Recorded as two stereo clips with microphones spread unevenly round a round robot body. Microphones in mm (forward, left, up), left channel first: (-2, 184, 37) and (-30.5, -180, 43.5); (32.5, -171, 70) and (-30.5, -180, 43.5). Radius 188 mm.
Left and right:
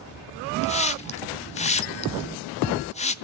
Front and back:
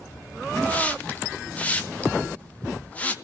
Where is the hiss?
105° left, 1.1 m.